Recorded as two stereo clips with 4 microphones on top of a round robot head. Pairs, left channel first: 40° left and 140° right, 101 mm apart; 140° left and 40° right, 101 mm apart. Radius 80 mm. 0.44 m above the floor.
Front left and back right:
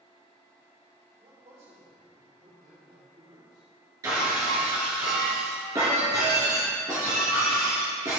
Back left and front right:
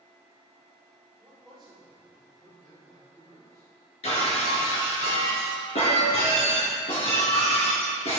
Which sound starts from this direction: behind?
Breaking glass, at 4.0 s.